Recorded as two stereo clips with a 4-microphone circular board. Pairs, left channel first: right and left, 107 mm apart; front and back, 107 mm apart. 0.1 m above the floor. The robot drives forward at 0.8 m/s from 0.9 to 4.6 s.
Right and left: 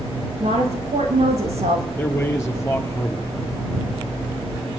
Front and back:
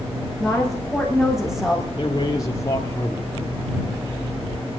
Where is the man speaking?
30° right, 1.9 m; by 3.3 s 65° right, 1.3 m.